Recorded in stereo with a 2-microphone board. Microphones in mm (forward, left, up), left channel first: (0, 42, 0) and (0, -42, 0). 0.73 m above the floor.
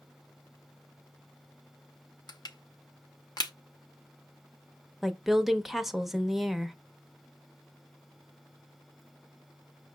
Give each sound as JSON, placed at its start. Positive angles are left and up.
{"t": 2.3, "sound": "crushing", "side_deg": 55, "distance_m": 0.6}
{"t": 5.0, "sound": "a woman speaking", "side_deg": 0, "distance_m": 0.5}